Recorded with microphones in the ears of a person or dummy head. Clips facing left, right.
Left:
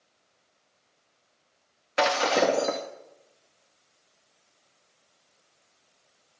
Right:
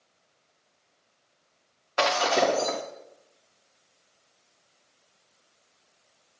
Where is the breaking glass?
25° left (ahead or behind), 3.5 m.